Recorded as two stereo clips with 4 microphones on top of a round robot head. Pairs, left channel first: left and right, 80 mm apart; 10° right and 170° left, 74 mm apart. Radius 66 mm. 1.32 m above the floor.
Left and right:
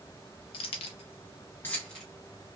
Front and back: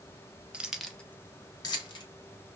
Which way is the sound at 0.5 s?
95° left.